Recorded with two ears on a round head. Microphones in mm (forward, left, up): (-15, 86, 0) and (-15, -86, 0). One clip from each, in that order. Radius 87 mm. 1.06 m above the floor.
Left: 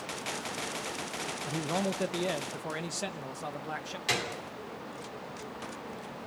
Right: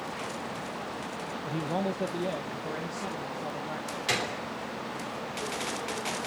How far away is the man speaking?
About 0.6 m.